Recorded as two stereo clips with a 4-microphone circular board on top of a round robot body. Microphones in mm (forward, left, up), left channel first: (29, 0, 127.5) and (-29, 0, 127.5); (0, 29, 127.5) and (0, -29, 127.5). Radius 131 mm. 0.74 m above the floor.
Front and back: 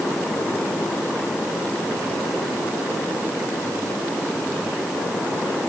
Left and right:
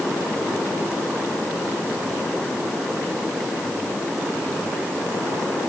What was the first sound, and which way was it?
Only background noise.